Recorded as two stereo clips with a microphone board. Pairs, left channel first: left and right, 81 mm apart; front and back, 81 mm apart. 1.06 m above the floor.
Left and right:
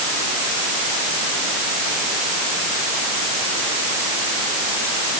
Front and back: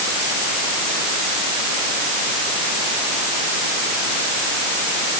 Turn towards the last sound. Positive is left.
No sound to turn to.